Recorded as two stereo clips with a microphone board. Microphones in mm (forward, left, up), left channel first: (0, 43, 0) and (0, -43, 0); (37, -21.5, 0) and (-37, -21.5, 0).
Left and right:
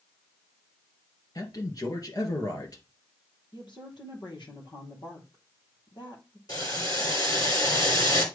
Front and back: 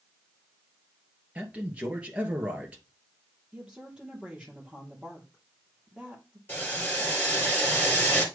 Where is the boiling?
60° left, 2.5 m.